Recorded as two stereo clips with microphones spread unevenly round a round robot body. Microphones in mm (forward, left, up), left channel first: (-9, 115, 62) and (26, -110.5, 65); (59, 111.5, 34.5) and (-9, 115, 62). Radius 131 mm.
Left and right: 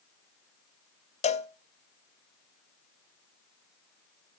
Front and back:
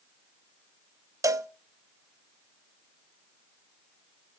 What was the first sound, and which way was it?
A cowbell, 135° left.